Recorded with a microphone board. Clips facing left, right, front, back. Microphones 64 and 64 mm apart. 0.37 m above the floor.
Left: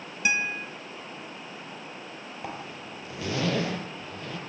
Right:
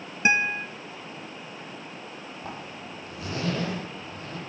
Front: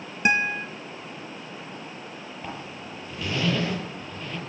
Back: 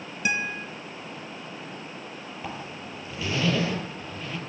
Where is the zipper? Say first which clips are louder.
Left 2 dB, back 1 dB; 95° left, 8.5 m.